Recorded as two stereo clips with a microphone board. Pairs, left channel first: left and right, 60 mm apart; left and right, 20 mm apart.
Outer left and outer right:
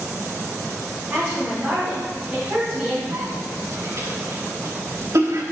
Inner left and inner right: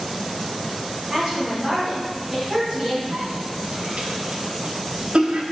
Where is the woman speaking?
30° right (ahead or behind), 5 m.